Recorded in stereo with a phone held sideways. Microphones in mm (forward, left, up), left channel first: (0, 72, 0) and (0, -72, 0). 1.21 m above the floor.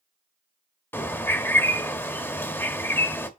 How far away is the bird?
About 0.8 m.